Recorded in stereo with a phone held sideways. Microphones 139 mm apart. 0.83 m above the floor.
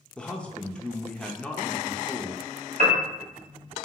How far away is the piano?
About 1.1 m.